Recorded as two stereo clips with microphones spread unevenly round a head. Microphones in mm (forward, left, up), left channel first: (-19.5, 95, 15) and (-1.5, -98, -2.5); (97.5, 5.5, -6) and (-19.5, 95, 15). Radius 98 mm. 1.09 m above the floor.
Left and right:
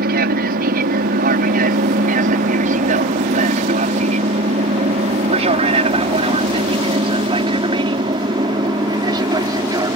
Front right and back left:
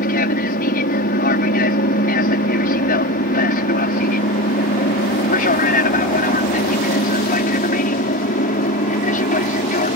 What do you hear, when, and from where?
0.0 s an aircraft: 45° right; by 10.0 s 15° right